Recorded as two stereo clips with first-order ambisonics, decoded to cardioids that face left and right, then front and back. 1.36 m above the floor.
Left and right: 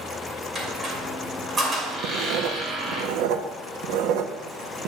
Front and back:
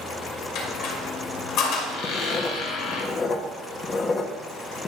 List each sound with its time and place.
0.6 s a squeak: 25° right, 2.0 m
2.0 s writing: 65° right, 0.7 m